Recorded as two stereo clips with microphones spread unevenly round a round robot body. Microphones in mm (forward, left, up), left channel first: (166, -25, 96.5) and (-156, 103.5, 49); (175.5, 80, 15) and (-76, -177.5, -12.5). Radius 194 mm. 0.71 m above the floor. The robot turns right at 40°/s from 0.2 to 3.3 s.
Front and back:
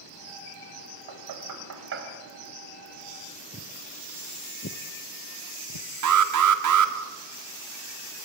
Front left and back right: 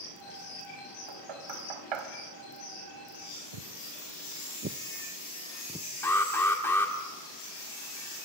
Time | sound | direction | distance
1.1 | knocking | 175° right | 3 m
3.5 | footsteps | 130° right | 1.2 m
6.0 | an alarm | 130° left | 1.6 m